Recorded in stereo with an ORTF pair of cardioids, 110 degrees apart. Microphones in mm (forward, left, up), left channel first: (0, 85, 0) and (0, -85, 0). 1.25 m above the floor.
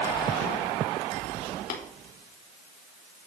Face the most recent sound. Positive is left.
turn(degrees=55)